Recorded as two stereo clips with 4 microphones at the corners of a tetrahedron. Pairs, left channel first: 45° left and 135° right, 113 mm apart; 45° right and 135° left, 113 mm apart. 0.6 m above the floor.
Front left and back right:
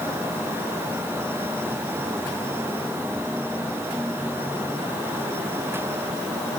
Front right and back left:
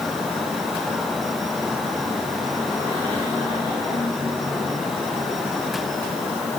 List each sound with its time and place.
Only background noise.